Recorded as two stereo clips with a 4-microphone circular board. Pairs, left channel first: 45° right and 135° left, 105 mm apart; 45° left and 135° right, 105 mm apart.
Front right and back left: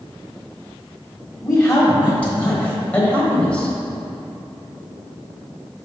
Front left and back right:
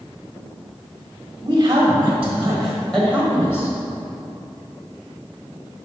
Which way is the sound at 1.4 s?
115° right.